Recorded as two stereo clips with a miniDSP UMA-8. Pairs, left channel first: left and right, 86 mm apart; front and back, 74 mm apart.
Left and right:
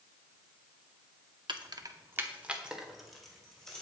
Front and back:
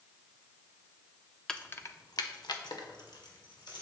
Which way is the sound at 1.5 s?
80° right.